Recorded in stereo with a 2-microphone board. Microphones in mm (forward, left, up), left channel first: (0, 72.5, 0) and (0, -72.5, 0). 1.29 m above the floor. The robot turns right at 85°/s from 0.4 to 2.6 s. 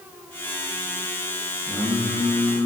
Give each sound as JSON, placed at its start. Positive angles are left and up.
{"t": 1.7, "sound": "singing", "azimuth_deg": -135, "distance_m": 3.0}